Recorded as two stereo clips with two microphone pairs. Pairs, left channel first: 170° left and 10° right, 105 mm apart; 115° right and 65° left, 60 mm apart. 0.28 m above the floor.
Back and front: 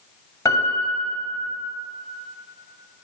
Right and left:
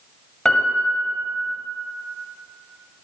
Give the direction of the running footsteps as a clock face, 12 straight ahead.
I don't hear running footsteps.